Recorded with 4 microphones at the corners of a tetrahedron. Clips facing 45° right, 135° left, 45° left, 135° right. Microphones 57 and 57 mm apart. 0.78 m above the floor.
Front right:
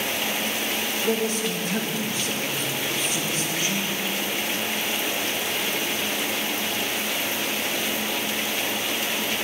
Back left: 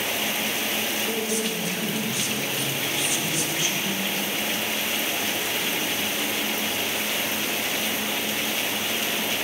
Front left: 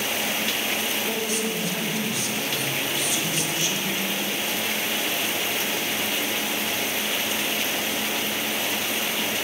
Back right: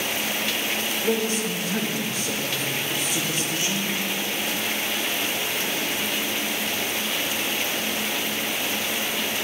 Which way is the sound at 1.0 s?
95° right.